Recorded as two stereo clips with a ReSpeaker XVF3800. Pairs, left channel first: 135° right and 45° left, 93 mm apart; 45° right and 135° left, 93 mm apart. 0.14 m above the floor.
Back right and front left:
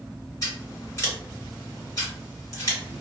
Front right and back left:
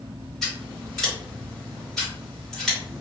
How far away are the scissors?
About 1.8 m.